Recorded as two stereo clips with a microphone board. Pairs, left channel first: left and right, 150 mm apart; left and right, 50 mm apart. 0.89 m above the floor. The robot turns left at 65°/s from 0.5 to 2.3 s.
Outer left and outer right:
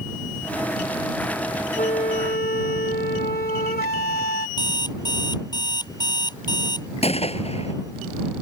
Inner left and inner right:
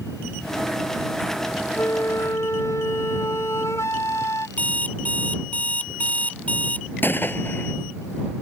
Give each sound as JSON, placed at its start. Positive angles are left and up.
{"t": 1.8, "sound": "a flute", "azimuth_deg": 125}
{"t": 4.6, "sound": "an alarm clock", "side_deg": 25}
{"t": 7.0, "sound": "a gunshot", "side_deg": 40}